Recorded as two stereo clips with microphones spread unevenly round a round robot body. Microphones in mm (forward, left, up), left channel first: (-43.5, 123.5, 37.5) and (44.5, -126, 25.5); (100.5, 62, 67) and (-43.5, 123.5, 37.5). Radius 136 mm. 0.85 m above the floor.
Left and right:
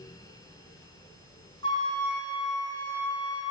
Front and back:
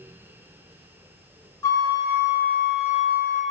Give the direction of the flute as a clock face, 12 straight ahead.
11 o'clock.